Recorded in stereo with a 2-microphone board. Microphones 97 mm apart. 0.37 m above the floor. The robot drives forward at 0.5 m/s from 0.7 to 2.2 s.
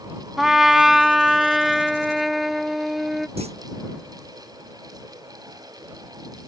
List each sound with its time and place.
0.4 s a trumpet: 5° right (ahead or behind); by 3.3 s centre (ahead or behind)
3.4 s a clunk: 85° right